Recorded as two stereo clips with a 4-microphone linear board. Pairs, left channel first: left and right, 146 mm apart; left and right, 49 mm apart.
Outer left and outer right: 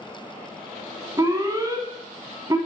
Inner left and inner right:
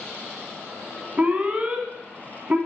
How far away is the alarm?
About 1.7 m.